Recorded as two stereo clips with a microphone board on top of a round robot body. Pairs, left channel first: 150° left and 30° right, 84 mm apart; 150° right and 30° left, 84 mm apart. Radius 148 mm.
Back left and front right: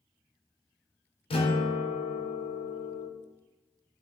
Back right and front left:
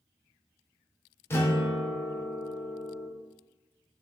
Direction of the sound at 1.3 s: 145° left.